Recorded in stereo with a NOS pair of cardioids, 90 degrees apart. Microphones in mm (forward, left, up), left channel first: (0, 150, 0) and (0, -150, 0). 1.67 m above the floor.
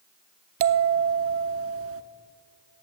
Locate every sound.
0.6 s a bell: 50° right, 0.6 m